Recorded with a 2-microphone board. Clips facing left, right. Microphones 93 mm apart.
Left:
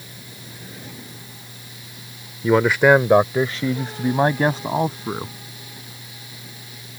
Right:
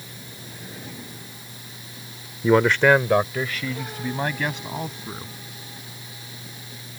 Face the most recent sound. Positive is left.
turn(degrees=40)  # may be behind; listen again after turning